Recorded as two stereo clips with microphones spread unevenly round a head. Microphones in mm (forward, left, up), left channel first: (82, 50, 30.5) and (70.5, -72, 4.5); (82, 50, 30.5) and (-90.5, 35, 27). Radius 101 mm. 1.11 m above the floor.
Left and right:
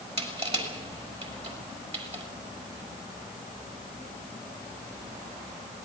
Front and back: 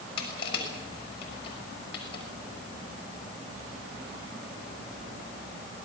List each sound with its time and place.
0.2 s crushing: 60° right, 6.5 m